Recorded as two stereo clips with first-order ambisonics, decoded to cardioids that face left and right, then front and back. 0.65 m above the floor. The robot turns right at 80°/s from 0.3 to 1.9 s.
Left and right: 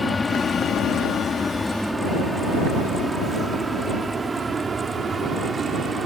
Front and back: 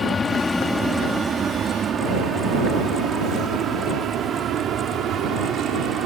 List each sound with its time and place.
0.0 s an aircraft: 30° left; by 6.1 s 150° right